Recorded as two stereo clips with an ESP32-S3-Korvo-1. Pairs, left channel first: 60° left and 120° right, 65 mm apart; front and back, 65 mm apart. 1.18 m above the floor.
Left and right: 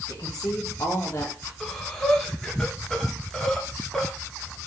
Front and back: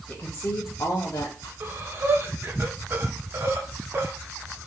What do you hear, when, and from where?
0.1 s a woman speaking: 50° left, 1.6 m; by 1.5 s straight ahead, 1.4 m
1.6 s breathing: 145° left, 0.8 m